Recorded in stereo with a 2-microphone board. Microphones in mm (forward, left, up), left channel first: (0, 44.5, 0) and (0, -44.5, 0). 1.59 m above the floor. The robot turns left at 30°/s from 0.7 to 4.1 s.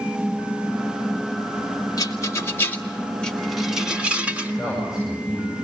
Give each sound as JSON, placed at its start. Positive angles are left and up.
{"t": 2.0, "sound": "a rattle", "side_deg": 40, "distance_m": 1.6}
{"t": 4.6, "sound": "a man speaking", "side_deg": -5, "distance_m": 8.0}